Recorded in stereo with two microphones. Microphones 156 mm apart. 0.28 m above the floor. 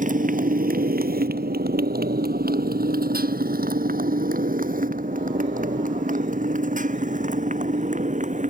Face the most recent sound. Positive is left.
turn(degrees=-50)  # may be behind; listen again after turning